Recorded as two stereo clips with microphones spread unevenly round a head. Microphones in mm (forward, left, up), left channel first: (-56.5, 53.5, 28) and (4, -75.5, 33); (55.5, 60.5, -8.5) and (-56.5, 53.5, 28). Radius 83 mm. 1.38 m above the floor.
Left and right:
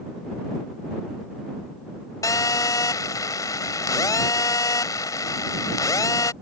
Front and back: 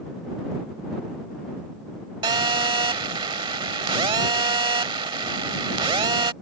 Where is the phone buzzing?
Straight behind.